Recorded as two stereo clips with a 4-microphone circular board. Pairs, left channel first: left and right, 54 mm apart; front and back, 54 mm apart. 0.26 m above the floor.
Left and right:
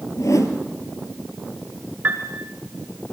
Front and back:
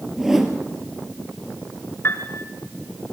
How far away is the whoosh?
About 2.5 m.